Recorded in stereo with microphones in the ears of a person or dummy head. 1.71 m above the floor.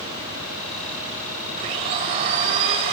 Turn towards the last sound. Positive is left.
turn(degrees=-30)  # may be behind; listen again after turning